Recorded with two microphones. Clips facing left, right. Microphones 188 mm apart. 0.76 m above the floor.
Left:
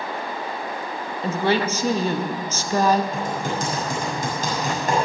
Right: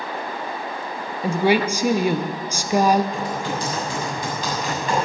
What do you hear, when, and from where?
1.2 s a woman speaking: 10° right (ahead or behind), 0.8 m
3.1 s typing on a keyboard: 45° left (ahead or behind), 6.5 m